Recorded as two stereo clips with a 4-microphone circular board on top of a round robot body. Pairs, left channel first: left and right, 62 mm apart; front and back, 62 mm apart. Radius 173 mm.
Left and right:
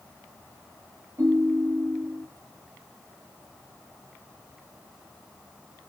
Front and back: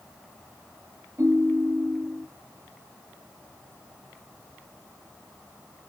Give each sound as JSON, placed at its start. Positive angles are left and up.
{"t": 1.2, "sound": "a ringtone", "azimuth_deg": -130, "distance_m": 6.0}